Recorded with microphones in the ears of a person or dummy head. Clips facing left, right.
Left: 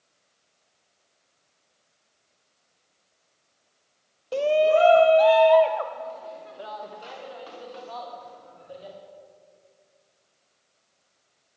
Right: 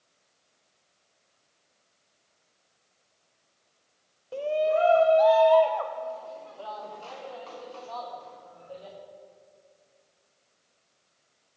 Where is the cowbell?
I don't hear a cowbell.